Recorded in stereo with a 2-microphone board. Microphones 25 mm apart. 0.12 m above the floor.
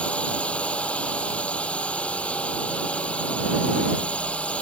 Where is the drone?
55° left (ahead or behind).